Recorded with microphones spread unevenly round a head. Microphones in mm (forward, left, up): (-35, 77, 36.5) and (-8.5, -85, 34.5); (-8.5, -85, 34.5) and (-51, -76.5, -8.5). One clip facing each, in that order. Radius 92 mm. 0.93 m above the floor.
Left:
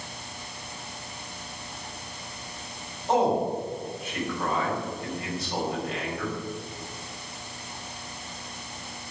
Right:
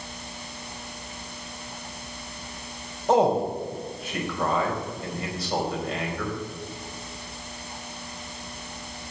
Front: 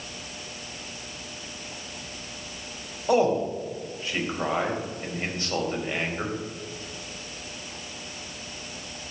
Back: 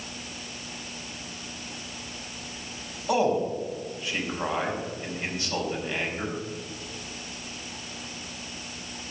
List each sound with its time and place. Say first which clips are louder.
3.1 s a man speaking: right 3 dB, front 2 dB; 55° right, 4 m